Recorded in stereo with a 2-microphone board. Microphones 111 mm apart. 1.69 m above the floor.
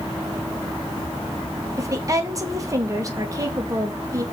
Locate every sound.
1.8 s a woman speaking: 30° right (ahead or behind), 1.7 m